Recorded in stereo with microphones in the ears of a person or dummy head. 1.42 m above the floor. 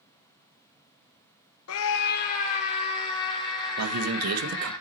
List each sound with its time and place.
1.7 s a scream: 80° left, 0.5 m; by 4.8 s 20° left (ahead or behind), 2.5 m
3.8 s a man speaking: 85° right, 1.4 m